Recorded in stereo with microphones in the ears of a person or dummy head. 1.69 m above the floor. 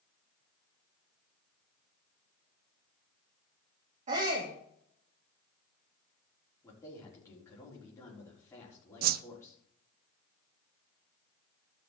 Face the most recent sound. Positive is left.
turn(degrees=-45)  # may be behind; listen again after turning